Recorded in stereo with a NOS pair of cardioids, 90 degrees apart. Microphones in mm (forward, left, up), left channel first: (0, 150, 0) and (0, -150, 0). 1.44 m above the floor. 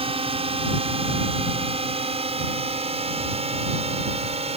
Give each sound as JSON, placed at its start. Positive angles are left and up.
{"t": 0.0, "sound": "a drone", "azimuth_deg": -20}